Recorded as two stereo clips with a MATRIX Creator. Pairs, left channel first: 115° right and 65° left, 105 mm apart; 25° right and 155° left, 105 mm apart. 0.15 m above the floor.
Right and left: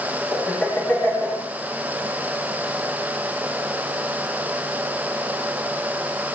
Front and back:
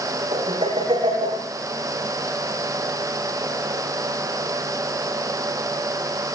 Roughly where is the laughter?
Behind.